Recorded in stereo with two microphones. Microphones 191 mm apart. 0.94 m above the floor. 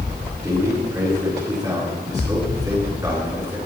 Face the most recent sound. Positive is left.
turn(degrees=-20)  # may be behind; listen again after turning